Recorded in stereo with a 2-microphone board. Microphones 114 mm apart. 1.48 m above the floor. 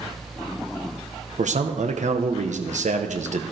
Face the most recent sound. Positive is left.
turn(degrees=-80)